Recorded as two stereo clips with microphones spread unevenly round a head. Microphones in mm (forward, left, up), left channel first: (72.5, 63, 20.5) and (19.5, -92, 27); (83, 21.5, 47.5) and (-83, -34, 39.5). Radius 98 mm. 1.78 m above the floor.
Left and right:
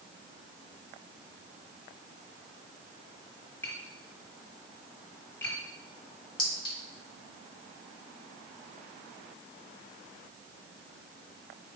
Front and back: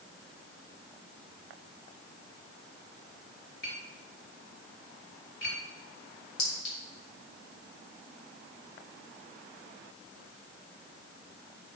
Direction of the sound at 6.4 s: 5° left.